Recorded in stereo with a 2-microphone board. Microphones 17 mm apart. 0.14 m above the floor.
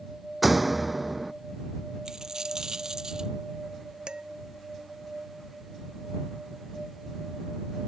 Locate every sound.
0.4 s a door slam: 5° right (ahead or behind)
2.0 s a dropped coin: 45° right (ahead or behind)
4.1 s dishes clattering: 70° right (ahead or behind)